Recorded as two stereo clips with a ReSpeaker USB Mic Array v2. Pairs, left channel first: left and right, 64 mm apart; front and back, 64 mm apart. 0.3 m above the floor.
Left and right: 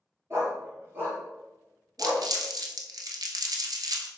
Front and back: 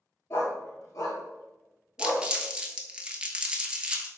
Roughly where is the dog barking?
Ahead right.